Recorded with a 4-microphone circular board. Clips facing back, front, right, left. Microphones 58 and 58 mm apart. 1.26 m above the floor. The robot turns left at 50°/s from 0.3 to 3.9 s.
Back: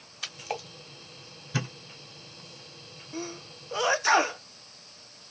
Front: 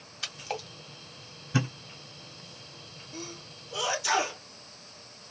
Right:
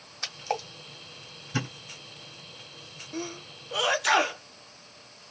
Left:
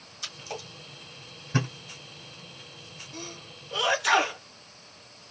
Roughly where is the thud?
Left.